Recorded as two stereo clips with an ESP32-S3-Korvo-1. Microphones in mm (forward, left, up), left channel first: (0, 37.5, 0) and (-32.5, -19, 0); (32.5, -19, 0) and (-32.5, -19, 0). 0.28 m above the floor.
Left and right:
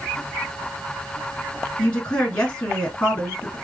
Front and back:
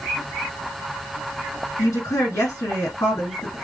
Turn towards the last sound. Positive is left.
turn(degrees=-5)